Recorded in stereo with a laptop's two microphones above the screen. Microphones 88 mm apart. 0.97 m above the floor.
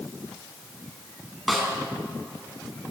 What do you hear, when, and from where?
1.5 s a snare drum: centre (ahead or behind), 4 m